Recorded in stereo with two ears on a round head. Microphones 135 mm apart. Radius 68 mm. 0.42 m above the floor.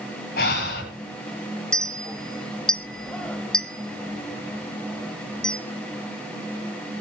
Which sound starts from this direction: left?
Breathing, at 0.4 s.